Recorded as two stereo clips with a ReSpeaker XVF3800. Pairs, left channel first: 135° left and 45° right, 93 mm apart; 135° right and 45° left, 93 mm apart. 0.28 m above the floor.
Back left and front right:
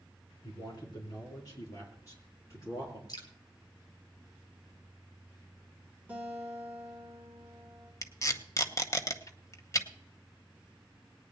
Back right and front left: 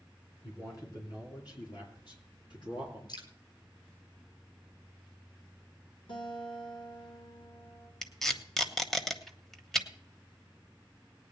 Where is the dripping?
175° right, 1.8 m.